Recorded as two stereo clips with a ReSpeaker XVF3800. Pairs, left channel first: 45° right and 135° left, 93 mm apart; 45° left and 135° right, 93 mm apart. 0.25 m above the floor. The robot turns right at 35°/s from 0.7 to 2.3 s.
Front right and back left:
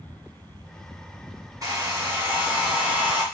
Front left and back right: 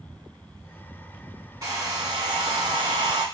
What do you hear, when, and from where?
1.6 s a hair dryer: straight behind, 1.4 m; by 3.2 s 155° right, 1.4 m